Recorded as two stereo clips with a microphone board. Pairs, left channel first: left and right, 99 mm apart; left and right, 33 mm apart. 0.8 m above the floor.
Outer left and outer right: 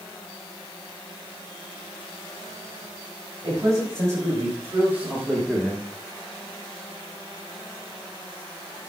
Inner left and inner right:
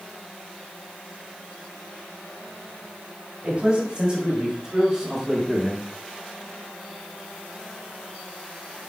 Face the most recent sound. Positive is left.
turn(degrees=15)  # may be behind; listen again after turning